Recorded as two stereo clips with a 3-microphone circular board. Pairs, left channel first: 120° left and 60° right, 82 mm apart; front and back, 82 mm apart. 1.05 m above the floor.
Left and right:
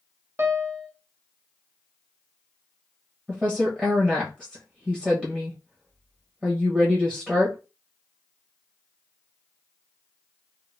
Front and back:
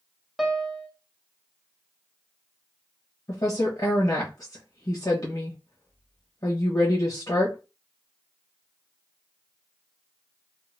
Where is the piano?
95° right, 0.6 m.